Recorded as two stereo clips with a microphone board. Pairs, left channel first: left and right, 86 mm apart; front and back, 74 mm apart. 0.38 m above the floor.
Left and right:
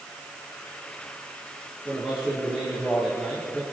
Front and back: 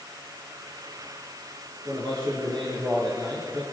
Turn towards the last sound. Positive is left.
turn(degrees=-170)